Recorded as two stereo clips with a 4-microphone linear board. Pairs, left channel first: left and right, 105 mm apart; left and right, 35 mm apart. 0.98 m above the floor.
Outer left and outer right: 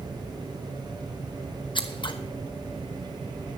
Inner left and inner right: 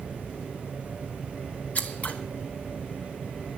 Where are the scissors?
50° left (ahead or behind), 1.1 m.